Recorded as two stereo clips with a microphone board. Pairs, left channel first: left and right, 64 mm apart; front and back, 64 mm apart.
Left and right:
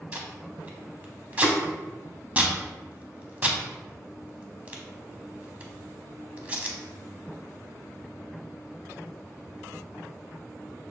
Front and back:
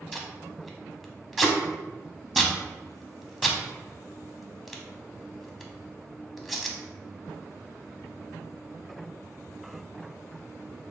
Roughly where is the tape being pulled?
Right.